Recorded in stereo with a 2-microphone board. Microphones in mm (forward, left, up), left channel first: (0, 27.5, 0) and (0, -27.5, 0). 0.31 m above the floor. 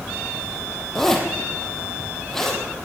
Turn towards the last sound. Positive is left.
turn(degrees=10)  # may be behind; listen again after turning